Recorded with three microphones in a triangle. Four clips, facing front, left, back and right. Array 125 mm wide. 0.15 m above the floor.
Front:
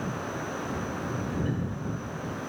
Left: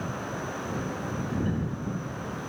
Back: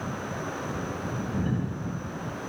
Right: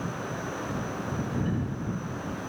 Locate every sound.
Only background noise.